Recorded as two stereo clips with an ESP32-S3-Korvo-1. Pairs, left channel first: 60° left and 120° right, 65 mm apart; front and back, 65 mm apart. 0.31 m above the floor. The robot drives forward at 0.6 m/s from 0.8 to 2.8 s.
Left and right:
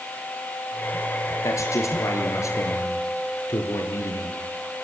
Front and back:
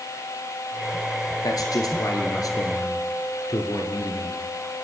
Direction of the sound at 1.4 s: 20° left.